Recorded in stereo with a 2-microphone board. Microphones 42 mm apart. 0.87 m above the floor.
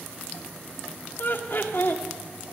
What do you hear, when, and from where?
1.2 s laughter: 55° left (ahead or behind), 2 m